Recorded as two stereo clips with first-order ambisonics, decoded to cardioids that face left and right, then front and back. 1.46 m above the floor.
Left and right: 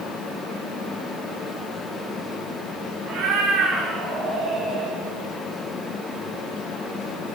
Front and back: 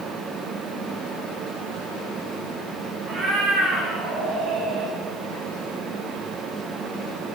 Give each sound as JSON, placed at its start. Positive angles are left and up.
{"t": 3.1, "sound": "a cat meowing", "azimuth_deg": -125, "distance_m": 3.0}